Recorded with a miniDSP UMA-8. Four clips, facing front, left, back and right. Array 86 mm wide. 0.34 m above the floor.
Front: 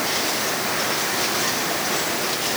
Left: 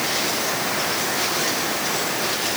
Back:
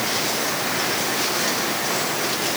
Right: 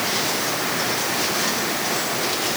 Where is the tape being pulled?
I don't hear tape being pulled.